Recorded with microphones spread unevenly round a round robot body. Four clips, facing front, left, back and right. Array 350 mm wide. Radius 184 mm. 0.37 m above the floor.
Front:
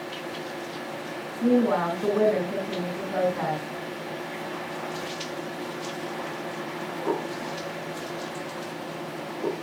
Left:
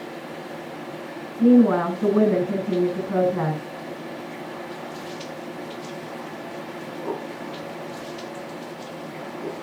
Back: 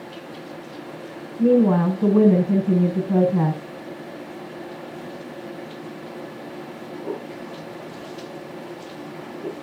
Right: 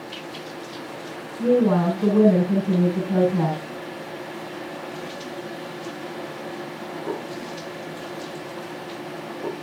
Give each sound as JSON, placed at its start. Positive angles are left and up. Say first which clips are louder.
{"t": 1.4, "sound": "a woman speaking", "louder": "left 3 dB, back 5 dB", "azimuth_deg": -175, "distance_m": 6.0}